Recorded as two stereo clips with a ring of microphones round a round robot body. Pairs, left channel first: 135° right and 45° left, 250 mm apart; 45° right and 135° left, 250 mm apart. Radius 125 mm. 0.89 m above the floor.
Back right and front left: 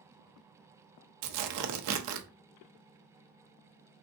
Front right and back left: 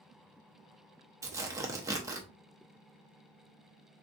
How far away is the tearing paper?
About 0.5 m.